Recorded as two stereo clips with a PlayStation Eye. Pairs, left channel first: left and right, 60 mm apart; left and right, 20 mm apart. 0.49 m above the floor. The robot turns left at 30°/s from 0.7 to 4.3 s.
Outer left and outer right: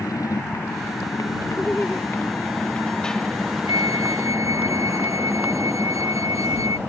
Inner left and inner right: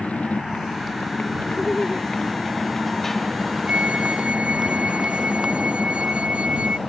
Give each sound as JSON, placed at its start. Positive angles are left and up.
{"t": 0.0, "sound": "a motorcycle", "side_deg": 75}
{"t": 1.6, "sound": "laughter", "side_deg": 15}
{"t": 3.7, "sound": "a flute", "side_deg": -80}